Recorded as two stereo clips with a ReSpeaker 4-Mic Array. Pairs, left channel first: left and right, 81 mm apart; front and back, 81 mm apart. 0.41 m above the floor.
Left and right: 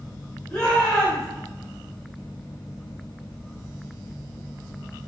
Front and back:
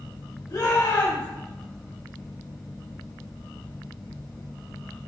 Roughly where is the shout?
Ahead.